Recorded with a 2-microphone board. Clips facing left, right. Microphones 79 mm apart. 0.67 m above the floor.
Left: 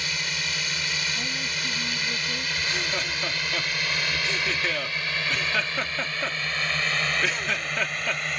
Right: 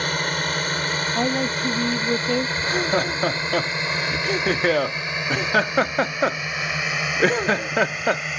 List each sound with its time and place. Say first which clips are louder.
0.0 s a drone: right 8 dB; 50° right (ahead or behind); by 8.4 s 5° right (ahead or behind)
1.1 s a woman speaking: right 10 dB; 65° right (ahead or behind)
2.6 s laughter: right 8 dB; 45° right (ahead or behind)